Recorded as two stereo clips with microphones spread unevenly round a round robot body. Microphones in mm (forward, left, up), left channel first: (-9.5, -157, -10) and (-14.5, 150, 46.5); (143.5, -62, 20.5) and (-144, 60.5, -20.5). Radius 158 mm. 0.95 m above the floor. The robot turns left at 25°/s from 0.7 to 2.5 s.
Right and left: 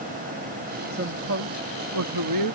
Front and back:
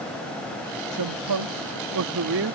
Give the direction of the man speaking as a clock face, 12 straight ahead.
7 o'clock.